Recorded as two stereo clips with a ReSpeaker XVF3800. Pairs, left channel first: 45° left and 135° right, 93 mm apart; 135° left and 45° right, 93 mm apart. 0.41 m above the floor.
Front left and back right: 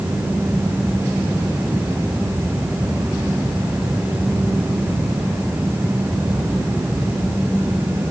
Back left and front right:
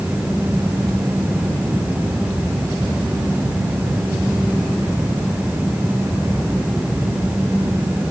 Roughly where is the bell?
No bell in this recording.